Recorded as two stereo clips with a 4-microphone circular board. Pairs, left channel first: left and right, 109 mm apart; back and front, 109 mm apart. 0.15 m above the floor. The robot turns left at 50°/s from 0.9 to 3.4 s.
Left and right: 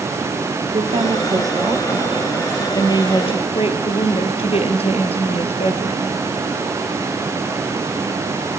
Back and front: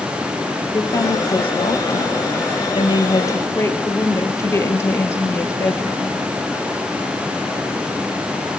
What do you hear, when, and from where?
0.7 s a woman speaking: 120° right, 3 m; by 6.2 s 115° left, 3 m